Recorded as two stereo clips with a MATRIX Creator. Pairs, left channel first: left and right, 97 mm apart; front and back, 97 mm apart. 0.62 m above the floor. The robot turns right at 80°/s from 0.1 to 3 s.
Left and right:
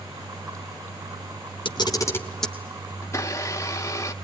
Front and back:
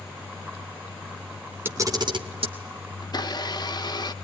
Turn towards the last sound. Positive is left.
turn(degrees=35)